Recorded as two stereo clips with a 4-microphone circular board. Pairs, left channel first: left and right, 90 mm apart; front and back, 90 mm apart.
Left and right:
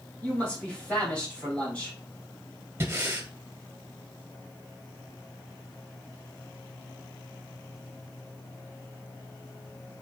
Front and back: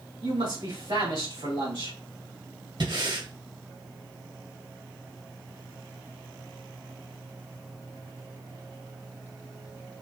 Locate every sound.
0.2 s a man speaking: 165° left, 2.5 m
2.8 s breathing: 155° right, 0.9 m